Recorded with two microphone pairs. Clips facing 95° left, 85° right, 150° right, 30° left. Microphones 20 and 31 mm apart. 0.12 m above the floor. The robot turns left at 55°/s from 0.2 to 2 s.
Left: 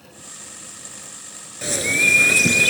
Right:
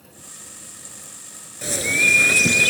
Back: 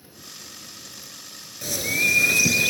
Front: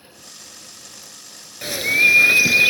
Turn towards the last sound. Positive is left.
turn(degrees=-5)